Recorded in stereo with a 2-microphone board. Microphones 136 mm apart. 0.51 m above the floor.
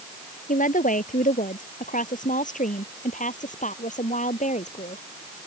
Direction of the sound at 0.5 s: 75° left (ahead or behind).